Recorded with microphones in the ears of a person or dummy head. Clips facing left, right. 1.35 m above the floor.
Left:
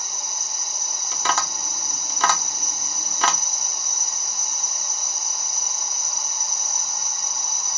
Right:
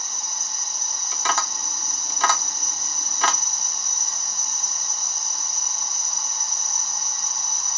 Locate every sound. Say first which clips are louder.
0.0 s an insect: left 1 dB; 10° left (ahead or behind), 0.9 m
1.1 s tapping: left 2 dB; 70° left (ahead or behind), 0.8 m